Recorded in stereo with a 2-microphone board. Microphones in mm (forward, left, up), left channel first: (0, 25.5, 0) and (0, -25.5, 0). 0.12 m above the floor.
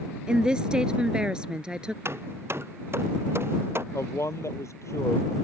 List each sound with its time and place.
0.3 s a woman speaking: 15° right (ahead or behind)
2.0 s hammering: 50° right (ahead or behind)
3.9 s a man speaking: 65° left (ahead or behind)